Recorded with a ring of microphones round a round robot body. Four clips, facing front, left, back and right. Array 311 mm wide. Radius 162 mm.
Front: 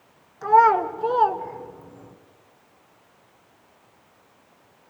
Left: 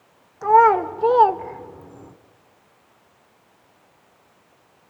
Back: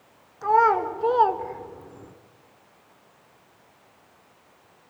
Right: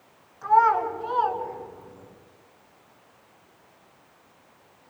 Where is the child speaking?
75° left, 1.9 m; by 2.1 s 110° left, 1.6 m.